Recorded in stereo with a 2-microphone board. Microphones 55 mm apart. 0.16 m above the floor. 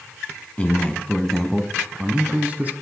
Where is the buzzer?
No buzzer in this recording.